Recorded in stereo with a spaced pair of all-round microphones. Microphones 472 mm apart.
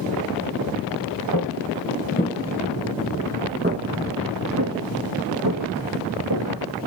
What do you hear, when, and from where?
1.3 s footsteps: 40° left (ahead or behind), 1.5 m; by 6.5 s 45° right (ahead or behind), 3.5 m